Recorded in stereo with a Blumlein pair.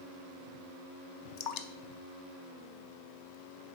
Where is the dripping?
40° left, 0.6 m.